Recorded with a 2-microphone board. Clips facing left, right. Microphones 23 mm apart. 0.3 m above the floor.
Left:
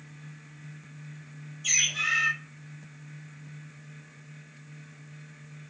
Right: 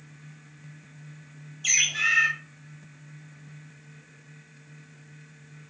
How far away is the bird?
About 1.2 m.